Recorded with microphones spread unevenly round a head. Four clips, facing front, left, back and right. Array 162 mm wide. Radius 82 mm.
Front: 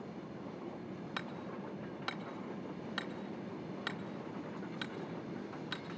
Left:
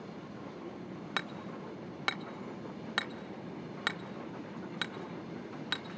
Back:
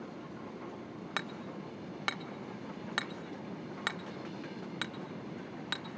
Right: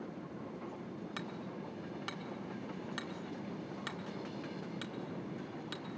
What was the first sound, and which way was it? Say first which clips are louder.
Hammering: left 6 dB, back 4 dB; 135° left.